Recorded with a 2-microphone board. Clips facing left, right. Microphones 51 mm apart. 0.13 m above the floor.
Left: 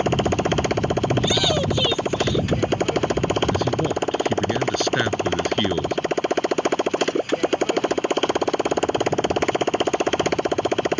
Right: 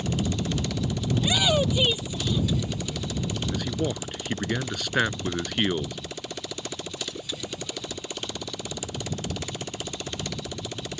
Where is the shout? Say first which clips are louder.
Left 3 dB; 5° right (ahead or behind).